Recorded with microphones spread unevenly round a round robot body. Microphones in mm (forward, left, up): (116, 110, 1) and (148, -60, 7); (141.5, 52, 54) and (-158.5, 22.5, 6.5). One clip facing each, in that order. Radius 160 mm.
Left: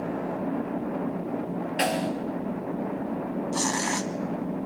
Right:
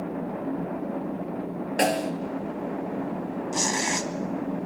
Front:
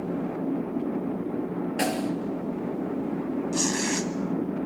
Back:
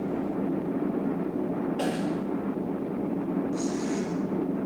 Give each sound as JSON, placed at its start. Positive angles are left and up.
{"t": 1.8, "sound": "a snare drum", "azimuth_deg": -45, "distance_m": 2.5}
{"t": 3.5, "sound": "tearing paper", "azimuth_deg": -10, "distance_m": 1.7}